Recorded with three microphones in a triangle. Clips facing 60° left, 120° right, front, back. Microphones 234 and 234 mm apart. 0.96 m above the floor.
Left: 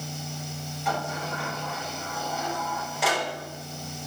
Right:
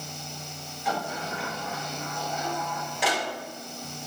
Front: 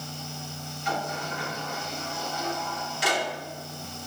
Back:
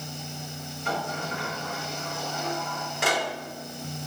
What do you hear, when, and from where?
0.8 s a sliding door: 150° left, 3.5 m